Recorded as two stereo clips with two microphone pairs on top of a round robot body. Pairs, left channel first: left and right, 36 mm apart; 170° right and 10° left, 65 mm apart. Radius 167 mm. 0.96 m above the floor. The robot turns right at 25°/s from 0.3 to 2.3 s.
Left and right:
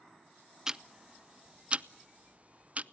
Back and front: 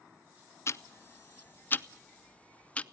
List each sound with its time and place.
0.7 s ticking: 150° right, 0.8 m; by 2.8 s 110° right, 0.8 m